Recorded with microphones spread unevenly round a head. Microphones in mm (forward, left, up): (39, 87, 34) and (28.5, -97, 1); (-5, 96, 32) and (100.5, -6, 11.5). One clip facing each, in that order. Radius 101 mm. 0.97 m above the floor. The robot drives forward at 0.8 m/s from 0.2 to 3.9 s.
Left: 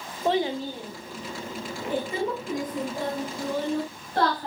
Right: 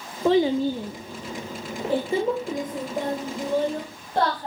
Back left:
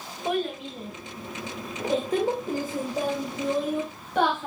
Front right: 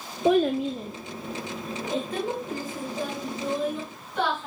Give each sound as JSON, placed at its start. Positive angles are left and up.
{"t": 0.2, "sound": "a child speaking", "azimuth_deg": -80, "distance_m": 0.6}